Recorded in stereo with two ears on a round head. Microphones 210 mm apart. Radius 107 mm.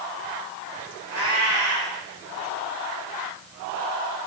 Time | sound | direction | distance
1.1 | a cat meowing | 70° right (ahead or behind) | 3 m